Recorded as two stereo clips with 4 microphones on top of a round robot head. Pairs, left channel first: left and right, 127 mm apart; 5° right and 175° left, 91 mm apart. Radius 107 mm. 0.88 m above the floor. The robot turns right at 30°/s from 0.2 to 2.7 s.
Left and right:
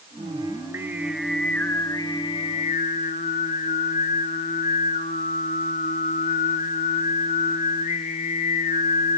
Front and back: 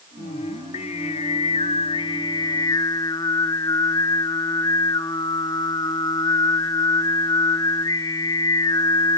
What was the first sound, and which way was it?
Singing, 35° right.